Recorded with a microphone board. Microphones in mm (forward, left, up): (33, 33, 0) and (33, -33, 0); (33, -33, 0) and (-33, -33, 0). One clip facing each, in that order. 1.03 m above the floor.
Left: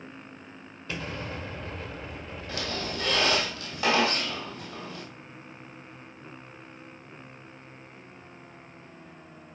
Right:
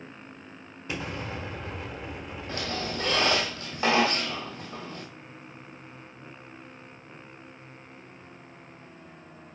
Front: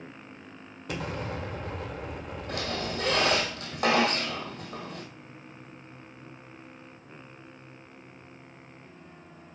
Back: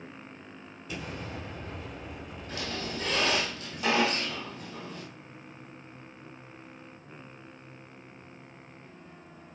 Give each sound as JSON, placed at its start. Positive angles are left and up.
{"t": 0.9, "sound": "an explosion", "azimuth_deg": -20, "distance_m": 1.3}
{"t": 2.5, "sound": "a squeak", "azimuth_deg": -25, "distance_m": 2.0}